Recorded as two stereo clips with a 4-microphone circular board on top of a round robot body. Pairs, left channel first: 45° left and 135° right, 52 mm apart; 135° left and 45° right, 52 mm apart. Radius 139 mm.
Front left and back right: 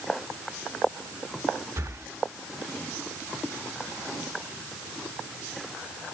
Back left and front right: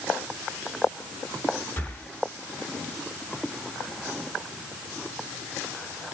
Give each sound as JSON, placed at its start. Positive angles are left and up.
{"t": 1.8, "sound": "breathing", "azimuth_deg": -165, "distance_m": 1.4}